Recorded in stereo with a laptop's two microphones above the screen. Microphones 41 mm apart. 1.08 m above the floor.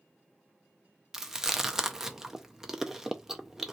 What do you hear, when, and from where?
1.1 s chewing: 10° right (ahead or behind), 0.5 m